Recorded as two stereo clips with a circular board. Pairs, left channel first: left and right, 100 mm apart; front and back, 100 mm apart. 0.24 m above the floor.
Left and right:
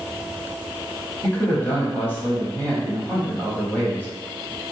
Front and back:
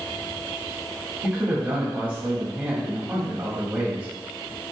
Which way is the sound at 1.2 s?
125° left.